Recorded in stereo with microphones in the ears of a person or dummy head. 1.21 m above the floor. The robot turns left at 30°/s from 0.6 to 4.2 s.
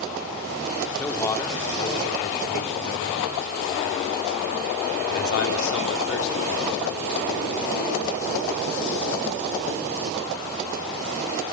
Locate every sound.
1.0 s a man speaking: 5° left (ahead or behind), 3 m; by 8.6 s 80° left, 3 m